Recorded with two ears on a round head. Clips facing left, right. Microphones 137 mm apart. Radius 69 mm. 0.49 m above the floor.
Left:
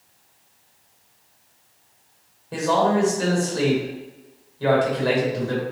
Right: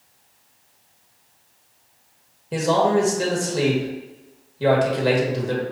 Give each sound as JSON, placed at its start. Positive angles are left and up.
{"t": 2.5, "sound": "a man speaking", "side_deg": -25, "distance_m": 1.5}